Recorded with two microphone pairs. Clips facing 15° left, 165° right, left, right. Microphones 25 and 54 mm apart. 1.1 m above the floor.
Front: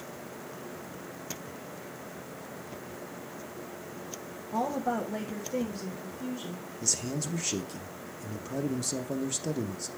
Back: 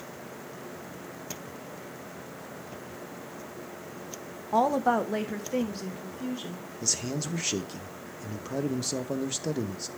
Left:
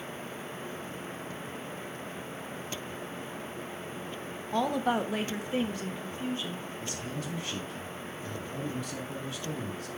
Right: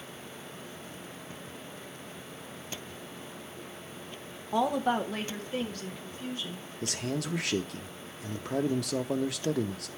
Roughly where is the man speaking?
Right.